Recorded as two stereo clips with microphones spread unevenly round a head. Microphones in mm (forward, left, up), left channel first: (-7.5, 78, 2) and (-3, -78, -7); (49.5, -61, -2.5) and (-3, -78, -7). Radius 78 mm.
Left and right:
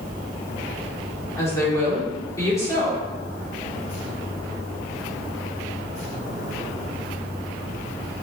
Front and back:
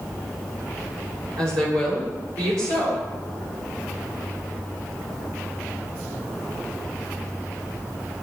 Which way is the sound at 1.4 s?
160° left.